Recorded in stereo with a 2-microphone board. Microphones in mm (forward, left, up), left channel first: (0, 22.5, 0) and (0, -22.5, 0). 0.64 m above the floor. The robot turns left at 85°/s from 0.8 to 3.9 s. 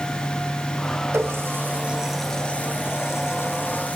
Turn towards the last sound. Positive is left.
turn(degrees=30)  # may be behind; listen again after turning